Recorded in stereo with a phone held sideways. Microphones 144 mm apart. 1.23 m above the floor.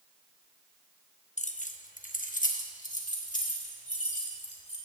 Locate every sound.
1.4 s keys jangling: 55° left (ahead or behind), 0.8 m